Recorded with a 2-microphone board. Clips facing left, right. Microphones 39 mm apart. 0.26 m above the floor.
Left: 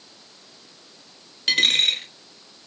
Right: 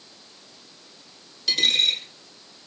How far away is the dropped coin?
About 1.0 m.